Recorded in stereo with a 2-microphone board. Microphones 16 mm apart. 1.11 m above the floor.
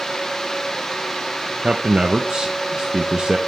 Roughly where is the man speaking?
Right.